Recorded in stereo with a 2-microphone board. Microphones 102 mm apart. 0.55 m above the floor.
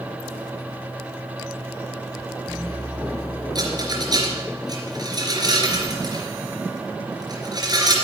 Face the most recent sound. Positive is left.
turn(degrees=-40)  # may be behind; listen again after turning